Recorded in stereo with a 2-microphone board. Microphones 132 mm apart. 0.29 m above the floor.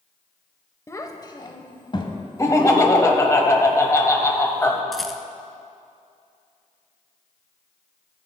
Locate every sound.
0.9 s a child speaking: 20° left (ahead or behind), 0.7 m; by 3.0 s 40° left (ahead or behind), 1.5 m
2.4 s laughter: 25° left (ahead or behind), 1.1 m
4.9 s a rattle: centre (ahead or behind), 0.7 m